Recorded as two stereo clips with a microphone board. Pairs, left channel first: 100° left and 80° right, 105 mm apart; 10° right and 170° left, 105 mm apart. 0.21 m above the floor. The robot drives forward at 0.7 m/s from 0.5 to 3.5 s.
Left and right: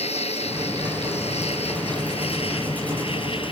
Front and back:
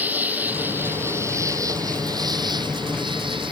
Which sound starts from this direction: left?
An insect, at 0.0 s.